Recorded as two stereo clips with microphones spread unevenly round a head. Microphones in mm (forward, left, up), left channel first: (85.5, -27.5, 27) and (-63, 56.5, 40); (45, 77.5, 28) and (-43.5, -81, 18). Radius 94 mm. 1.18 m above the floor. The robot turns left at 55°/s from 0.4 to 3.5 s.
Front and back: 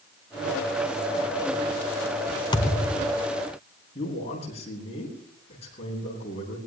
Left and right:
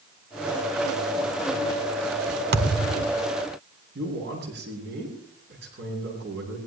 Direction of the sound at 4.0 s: 90° right.